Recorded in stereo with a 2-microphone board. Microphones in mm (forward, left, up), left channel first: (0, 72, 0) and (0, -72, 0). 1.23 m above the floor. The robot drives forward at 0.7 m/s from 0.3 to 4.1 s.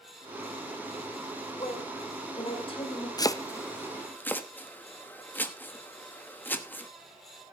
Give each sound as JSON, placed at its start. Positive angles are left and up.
{"t": 1.6, "sound": "a woman speaking", "side_deg": 35, "distance_m": 5.0}
{"t": 3.2, "sound": "chopping", "side_deg": 25, "distance_m": 0.5}